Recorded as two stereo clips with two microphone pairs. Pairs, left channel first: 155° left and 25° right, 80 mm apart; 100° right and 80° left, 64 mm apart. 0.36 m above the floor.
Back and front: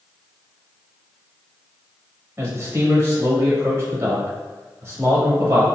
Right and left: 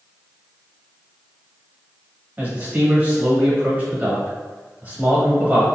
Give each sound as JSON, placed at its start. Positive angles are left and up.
{"t": 2.4, "sound": "a man speaking", "azimuth_deg": 20, "distance_m": 1.4}